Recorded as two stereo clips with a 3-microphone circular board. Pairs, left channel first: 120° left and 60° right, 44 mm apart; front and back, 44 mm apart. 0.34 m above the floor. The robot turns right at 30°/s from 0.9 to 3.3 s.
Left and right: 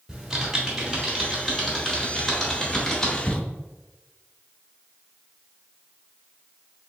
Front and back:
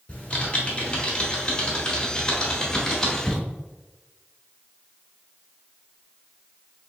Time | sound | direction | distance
0.1 | typing on a keyboard | 5° right | 1.4 m